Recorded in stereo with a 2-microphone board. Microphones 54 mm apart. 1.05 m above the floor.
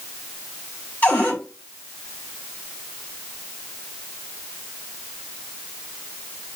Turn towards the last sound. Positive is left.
turn(degrees=30)  # may be behind; listen again after turning